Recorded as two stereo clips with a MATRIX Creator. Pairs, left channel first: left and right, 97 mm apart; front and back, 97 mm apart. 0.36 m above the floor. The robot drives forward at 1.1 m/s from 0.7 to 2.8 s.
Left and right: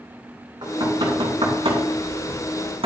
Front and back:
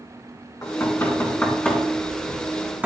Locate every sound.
0.6 s knocking: 55° right, 3 m; by 2.9 s 105° right, 2.5 m